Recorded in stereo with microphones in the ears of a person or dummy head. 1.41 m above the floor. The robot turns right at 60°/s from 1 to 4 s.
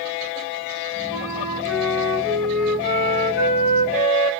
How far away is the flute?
About 2.5 m.